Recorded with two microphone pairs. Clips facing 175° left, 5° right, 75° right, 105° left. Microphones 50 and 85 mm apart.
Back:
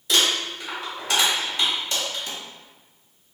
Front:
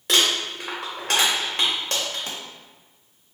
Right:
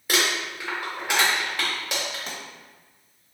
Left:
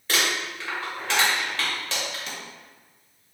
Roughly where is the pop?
Ahead right.